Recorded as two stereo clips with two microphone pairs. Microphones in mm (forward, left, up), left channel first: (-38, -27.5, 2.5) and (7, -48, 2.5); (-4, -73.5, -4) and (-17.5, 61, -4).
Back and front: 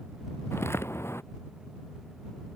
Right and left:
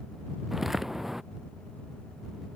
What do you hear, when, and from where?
0.5 s footsteps: 175° right